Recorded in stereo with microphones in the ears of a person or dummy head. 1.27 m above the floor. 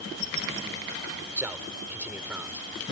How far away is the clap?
No clap in this recording.